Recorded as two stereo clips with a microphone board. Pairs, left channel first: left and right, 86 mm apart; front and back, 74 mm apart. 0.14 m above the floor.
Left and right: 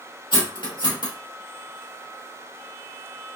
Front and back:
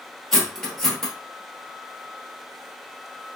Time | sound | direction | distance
0.3 | cutlery clinking | 85° left | 2.0 m